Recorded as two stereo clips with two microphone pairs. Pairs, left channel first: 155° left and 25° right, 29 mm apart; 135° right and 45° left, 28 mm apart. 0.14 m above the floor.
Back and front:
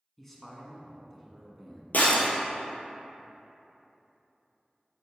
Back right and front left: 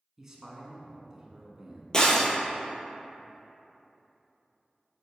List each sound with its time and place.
0.2 s a man speaking: 95° left, 1.1 m
1.9 s breaking glass: 160° left, 1.3 m